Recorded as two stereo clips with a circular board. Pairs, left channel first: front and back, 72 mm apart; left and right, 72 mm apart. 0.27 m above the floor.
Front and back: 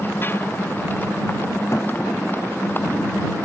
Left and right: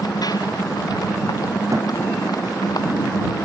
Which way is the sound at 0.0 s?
60° left.